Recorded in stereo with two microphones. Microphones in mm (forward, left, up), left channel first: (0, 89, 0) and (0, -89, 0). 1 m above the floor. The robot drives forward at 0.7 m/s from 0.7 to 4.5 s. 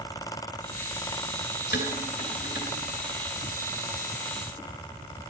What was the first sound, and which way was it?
Dishes clattering, 65° left (ahead or behind).